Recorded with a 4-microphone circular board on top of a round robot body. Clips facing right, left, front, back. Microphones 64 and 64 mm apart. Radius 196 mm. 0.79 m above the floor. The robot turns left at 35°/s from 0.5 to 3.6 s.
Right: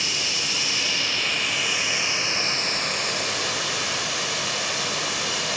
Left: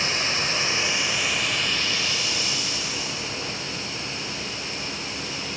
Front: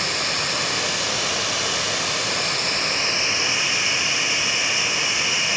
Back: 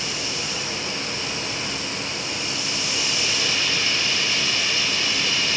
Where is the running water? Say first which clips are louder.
Left 3 dB, front 4 dB; 35° left, 2.0 m; by 5.6 s 75° right, 2.0 m.